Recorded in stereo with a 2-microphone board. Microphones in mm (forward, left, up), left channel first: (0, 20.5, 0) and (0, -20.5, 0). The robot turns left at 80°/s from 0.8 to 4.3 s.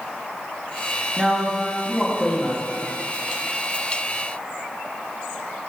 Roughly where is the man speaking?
Centre.